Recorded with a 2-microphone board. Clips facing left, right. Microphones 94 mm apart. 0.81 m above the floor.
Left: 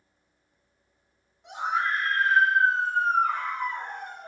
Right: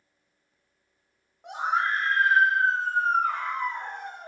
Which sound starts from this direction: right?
A scream, at 1.4 s.